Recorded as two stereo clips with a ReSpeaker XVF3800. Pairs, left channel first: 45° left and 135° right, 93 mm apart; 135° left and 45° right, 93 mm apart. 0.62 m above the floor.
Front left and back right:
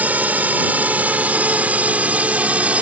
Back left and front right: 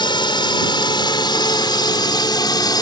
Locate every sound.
0.0 s a drone: 150° left